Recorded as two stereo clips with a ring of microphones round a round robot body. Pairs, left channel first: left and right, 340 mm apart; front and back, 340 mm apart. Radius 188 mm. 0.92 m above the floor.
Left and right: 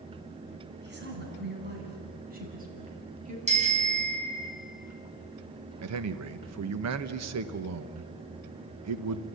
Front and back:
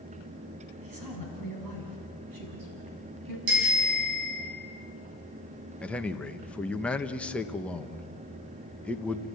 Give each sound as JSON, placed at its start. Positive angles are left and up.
{"t": 0.8, "sound": "a woman speaking", "azimuth_deg": -150, "distance_m": 8.0}
{"t": 3.5, "sound": "a bicycle bell", "azimuth_deg": -160, "distance_m": 6.5}
{"t": 5.8, "sound": "a man speaking", "azimuth_deg": -85, "distance_m": 1.1}